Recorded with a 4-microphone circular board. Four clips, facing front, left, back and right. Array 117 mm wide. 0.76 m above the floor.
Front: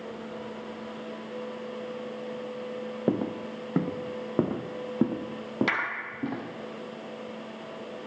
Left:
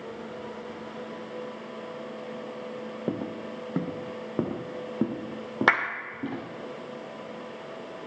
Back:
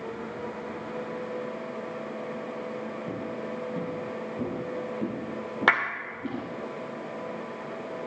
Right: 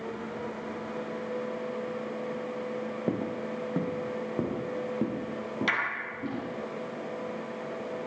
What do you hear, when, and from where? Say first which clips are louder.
3.1 s footsteps: even, front 5 dB; straight ahead, 1.1 m; by 6.4 s 25° left, 4 m
5.7 s a clap: left 8 dB, back 11 dB; 125° left, 2 m